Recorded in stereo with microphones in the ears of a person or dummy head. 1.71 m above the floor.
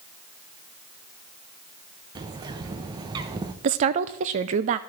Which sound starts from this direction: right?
A woman speaking, at 3.6 s.